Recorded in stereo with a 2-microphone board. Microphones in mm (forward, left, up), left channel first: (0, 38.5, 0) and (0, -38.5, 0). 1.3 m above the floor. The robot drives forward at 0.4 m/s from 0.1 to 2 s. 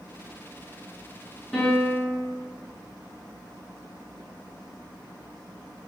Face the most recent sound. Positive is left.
turn(degrees=0)  # may be behind; listen again after turning